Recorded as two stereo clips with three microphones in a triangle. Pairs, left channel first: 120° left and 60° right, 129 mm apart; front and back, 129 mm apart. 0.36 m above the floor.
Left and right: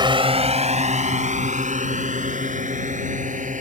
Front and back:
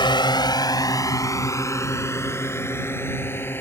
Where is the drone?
30° right; by 3.6 s 75° right.